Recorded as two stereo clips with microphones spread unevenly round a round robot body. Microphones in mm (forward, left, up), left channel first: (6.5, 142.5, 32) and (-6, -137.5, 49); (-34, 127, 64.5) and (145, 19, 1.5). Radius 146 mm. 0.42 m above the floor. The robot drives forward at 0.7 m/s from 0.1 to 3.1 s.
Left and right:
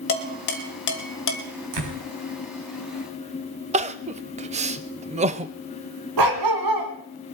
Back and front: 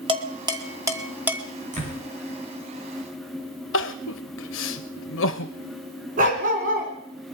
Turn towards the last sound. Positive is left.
turn(degrees=-90)